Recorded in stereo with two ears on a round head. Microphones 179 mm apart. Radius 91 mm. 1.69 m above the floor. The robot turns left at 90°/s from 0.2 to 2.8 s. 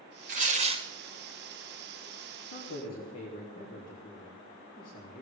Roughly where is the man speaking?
Left.